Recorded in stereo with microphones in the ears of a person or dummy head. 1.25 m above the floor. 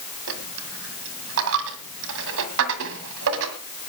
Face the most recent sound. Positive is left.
turn(degrees=-60)  # may be behind; listen again after turning